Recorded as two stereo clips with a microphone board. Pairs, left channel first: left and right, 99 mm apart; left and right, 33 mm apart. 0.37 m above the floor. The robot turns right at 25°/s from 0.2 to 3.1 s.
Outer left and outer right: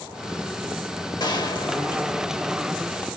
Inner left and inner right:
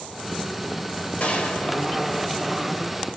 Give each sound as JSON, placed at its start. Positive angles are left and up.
{"t": 1.2, "sound": "a gunshot", "azimuth_deg": 75, "distance_m": 1.0}